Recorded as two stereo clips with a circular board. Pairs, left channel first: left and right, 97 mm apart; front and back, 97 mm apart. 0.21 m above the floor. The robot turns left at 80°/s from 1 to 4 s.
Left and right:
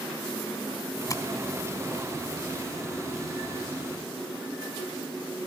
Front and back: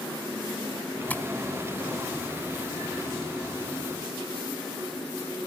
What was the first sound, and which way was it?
Tapping, 65° left.